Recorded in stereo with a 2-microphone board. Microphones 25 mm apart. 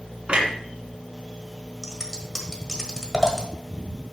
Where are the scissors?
20° left (ahead or behind), 1.5 m.